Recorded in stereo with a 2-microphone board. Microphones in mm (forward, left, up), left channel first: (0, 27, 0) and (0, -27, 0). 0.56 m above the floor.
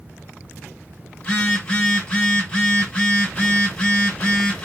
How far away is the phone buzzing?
About 1.2 m.